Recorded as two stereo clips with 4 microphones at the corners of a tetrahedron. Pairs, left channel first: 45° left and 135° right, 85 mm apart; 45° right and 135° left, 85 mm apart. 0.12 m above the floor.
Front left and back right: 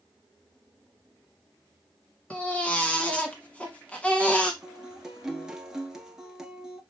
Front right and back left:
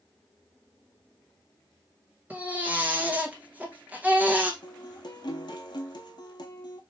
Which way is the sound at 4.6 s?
55° right.